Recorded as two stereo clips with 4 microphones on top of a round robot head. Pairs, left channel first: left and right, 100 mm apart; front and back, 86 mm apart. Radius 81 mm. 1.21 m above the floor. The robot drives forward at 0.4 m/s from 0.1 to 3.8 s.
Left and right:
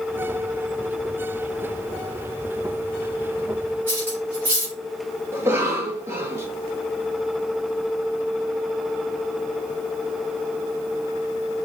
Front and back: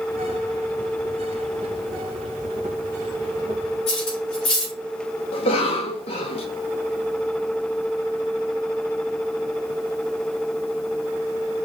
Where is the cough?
20° right, 1.3 m.